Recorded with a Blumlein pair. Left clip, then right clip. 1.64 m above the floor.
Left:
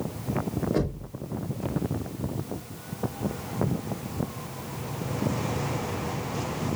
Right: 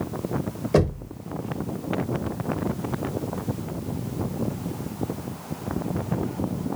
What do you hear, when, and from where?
0.7 s knocking: 35° right, 1.7 m